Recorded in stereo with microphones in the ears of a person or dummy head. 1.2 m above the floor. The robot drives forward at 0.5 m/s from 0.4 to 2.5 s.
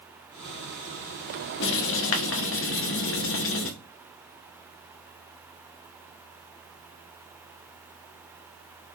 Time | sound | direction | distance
1.6 | writing | 60° left (ahead or behind) | 1.0 m